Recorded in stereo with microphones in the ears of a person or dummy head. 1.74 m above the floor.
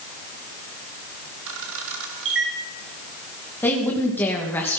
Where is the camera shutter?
70° right (ahead or behind), 1.9 m.